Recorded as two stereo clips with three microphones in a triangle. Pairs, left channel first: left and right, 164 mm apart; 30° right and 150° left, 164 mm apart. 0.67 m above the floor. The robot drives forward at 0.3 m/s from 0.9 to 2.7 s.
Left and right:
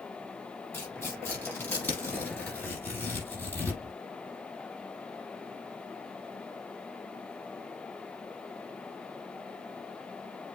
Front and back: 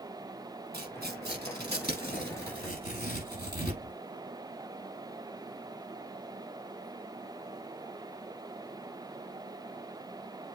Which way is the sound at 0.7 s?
165° left.